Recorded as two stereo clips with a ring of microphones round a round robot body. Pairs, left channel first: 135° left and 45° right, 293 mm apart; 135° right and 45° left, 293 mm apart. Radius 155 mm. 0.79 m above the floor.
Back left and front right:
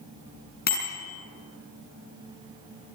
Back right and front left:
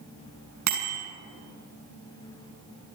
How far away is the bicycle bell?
About 6.5 m.